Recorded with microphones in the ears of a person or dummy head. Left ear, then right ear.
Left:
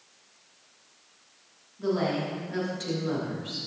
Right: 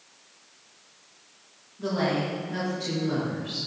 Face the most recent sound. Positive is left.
turn(degrees=55)  # may be behind; listen again after turning